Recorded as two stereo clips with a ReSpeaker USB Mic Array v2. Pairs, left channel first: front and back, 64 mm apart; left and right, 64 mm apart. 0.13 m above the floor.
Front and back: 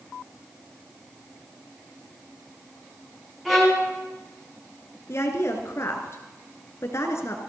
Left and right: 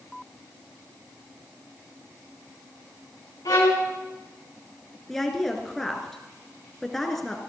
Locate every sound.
3.5 s a violin: 95° left, 4 m
5.1 s a woman speaking: 5° left, 2.5 m